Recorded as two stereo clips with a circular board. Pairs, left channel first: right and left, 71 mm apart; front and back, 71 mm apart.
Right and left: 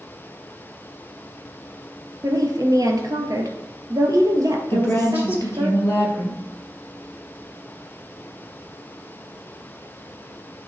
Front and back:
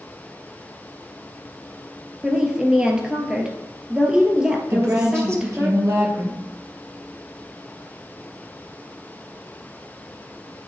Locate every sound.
2.2 s a woman speaking: 105° left, 2 m
4.7 s a woman speaking: 140° right, 3 m